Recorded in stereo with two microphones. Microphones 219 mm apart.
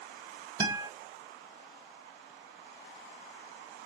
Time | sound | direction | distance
0.6 | a guitar | 20° right (ahead or behind) | 1.2 m